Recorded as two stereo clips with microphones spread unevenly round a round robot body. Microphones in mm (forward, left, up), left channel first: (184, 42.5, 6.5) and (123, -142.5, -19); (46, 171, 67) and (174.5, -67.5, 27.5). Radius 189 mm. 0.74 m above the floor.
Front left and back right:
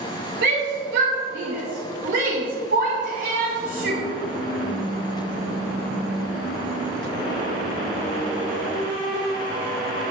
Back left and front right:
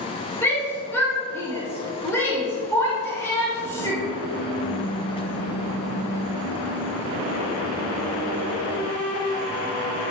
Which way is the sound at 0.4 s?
155° right.